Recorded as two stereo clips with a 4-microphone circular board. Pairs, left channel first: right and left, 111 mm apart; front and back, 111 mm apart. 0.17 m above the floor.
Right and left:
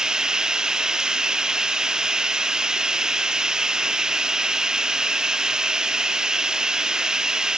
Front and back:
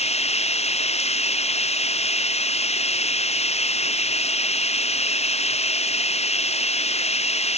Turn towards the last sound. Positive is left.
turn(degrees=5)